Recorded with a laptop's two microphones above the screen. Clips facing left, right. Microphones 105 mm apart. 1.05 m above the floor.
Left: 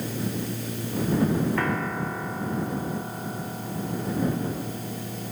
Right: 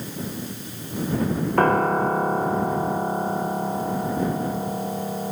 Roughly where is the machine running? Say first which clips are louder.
Left 2 dB; left.